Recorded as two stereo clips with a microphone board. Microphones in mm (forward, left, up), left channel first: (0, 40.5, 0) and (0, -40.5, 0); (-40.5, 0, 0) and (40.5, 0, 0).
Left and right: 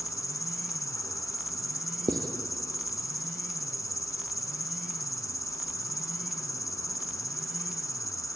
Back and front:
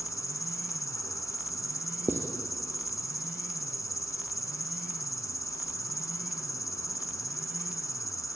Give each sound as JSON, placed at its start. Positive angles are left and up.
{"t": 0.0, "sound": "an insect", "azimuth_deg": 135, "distance_m": 1.1}
{"t": 2.1, "sound": "writing", "azimuth_deg": -60, "distance_m": 2.5}